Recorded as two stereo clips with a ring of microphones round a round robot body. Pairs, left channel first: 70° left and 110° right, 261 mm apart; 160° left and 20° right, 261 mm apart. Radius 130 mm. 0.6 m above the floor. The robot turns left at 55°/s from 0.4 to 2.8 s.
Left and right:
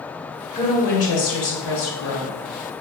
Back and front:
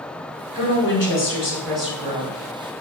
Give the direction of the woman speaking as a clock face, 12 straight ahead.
7 o'clock.